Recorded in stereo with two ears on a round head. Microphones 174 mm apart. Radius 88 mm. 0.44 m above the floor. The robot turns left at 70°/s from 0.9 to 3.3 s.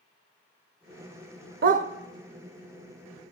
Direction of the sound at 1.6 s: 50° right (ahead or behind).